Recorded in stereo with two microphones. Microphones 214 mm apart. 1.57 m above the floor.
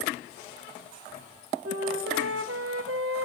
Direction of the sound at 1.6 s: 80° right.